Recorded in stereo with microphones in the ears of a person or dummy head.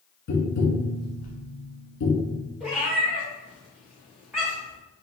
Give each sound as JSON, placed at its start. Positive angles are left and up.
{"t": 0.3, "sound": "tapping", "side_deg": 50, "distance_m": 1.6}
{"t": 2.6, "sound": "a cat meowing", "side_deg": -5, "distance_m": 1.0}